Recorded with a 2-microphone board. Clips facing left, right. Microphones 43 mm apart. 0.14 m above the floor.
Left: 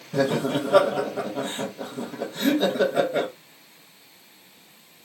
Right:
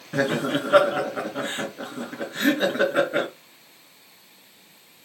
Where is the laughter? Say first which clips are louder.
Even; 45° right (ahead or behind), 1.5 m.